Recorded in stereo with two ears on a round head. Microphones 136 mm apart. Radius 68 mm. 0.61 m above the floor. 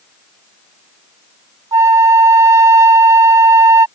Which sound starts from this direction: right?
A flute, at 1.7 s.